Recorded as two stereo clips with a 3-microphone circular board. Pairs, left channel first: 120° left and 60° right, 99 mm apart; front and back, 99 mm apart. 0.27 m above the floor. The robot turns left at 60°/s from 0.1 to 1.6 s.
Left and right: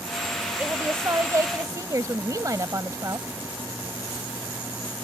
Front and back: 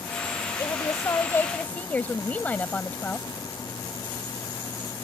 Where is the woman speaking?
Straight ahead; by 3.3 s 60° right.